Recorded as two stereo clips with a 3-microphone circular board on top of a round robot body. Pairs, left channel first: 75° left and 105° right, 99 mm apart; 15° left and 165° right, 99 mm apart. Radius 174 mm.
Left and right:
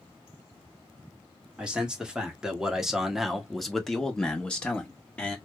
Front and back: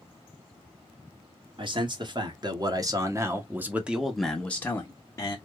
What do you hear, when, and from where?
1.6 s a man speaking: 175° left, 1.7 m; by 5.4 s 10° left, 1.2 m